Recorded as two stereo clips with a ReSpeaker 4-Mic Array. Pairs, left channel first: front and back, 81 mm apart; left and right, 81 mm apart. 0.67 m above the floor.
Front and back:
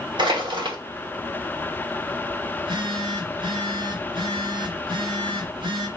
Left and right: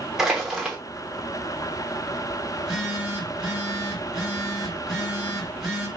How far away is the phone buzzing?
About 1.9 m.